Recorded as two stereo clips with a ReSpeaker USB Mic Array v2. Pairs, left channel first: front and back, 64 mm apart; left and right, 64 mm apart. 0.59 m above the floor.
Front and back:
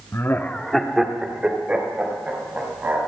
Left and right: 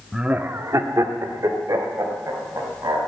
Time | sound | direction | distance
0.1 | laughter | 10° right | 1.0 m